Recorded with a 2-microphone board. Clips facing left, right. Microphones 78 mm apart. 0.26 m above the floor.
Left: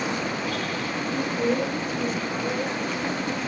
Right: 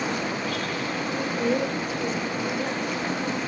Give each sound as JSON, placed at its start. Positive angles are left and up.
{"t": 1.1, "sound": "a woman speaking", "side_deg": 50, "distance_m": 3.0}